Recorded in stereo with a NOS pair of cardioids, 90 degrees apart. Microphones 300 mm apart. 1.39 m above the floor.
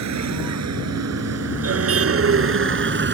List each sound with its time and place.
0.0 s a vehicle: 65° right; by 3.1 s 40° right